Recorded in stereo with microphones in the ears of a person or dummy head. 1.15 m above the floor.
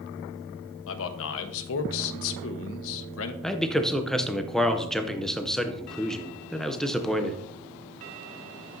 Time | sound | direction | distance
0.9 | a man speaking | 75° left (ahead or behind) | 1.1 m
3.4 | a man speaking | 5° left (ahead or behind) | 0.6 m